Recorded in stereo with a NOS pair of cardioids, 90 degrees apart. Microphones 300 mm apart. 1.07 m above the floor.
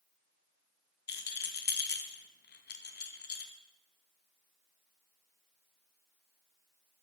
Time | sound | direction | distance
1.1 | a rattle | 35° left | 0.7 m